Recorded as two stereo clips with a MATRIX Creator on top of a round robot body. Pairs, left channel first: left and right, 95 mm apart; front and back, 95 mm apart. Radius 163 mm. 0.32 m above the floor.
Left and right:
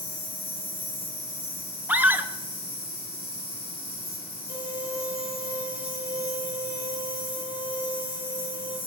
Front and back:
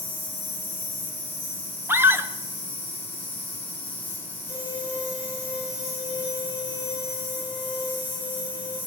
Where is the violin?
135° left, 5.5 m.